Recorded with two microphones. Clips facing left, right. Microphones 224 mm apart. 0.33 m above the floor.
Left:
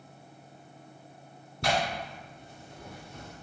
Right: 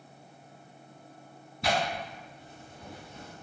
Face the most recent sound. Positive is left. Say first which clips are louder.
# even
turn(degrees=75)  # may be behind; listen again after turning